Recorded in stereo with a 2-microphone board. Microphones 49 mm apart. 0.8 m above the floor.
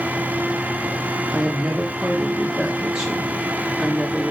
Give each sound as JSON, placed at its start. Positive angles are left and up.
{"t": 1.3, "sound": "a woman speaking", "side_deg": -15, "distance_m": 1.1}